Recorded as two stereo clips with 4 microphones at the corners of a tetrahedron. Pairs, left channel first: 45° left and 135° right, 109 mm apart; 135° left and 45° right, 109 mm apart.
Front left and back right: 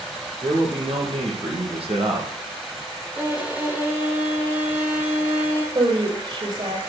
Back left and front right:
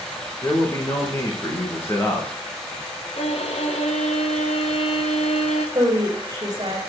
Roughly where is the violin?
Behind left.